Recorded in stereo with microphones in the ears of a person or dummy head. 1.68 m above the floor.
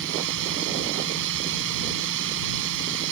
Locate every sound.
0.0 s a drone: 70° right (ahead or behind)